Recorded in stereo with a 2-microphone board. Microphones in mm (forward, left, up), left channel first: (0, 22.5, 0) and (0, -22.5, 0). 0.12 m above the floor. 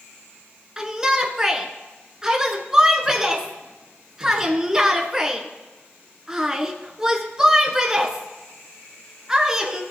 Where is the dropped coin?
No dropped coin in this recording.